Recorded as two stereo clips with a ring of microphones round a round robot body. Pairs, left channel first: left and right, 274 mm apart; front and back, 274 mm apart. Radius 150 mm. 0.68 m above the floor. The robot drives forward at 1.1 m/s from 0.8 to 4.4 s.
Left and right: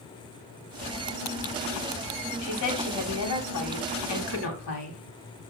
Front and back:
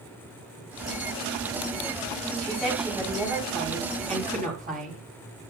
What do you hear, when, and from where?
2.4 s a woman speaking: 85° left, 4 m; by 5.0 s 115° left, 4.5 m